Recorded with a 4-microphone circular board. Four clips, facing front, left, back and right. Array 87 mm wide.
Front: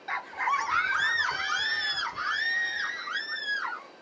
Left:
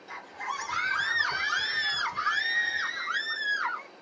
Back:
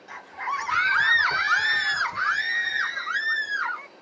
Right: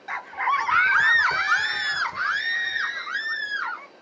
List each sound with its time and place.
0.1 s a scream: 60° right, 0.7 m; by 3.9 s 155° right, 2.5 m